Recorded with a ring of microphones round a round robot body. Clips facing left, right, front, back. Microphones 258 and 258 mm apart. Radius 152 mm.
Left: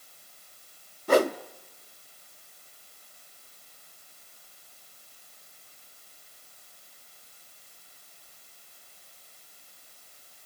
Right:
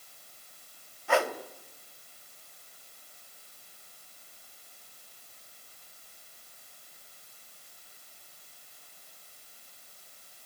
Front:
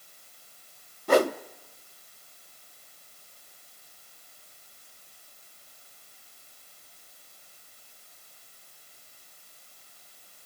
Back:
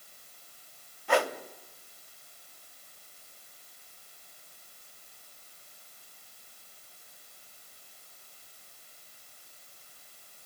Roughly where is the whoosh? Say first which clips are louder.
Left 6 dB, front 6 dB; ahead left.